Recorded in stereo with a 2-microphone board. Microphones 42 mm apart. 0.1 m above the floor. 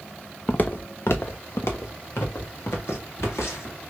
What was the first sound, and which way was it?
Footsteps, 30° left (ahead or behind).